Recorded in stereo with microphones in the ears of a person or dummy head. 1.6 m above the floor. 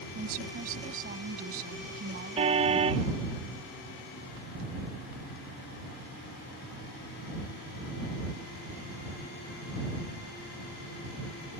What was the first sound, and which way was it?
A woman speaking, 50° right (ahead or behind).